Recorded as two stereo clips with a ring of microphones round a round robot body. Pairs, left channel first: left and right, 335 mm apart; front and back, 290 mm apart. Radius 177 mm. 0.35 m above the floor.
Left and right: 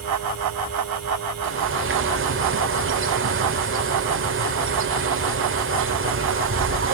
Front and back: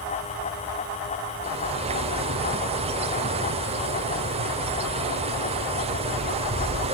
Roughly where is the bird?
Behind right.